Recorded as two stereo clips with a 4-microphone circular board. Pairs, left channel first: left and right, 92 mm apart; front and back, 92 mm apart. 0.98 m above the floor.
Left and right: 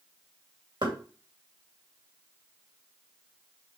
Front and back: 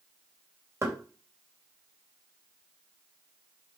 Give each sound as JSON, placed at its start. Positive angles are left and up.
{"t": 0.8, "sound": "knocking", "azimuth_deg": -125, "distance_m": 2.5}